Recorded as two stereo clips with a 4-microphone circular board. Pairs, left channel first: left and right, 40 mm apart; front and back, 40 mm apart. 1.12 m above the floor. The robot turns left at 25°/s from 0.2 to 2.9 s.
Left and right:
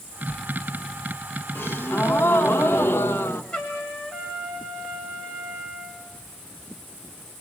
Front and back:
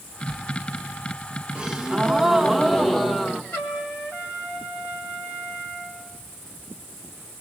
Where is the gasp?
115° left, 1.6 m; by 3.4 s 80° left, 1.6 m.